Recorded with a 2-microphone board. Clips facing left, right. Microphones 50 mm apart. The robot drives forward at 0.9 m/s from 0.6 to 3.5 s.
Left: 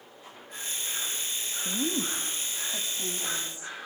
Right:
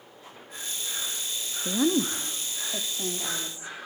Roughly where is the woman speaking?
Right.